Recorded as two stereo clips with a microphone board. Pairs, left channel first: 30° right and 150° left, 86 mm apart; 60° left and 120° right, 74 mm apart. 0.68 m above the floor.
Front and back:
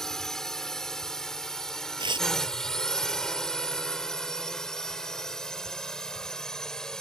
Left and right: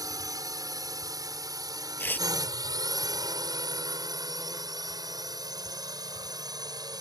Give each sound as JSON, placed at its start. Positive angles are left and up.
{"t": 0.0, "sound": "a drone", "azimuth_deg": -110}
{"t": 2.0, "sound": "tearing paper", "azimuth_deg": 125}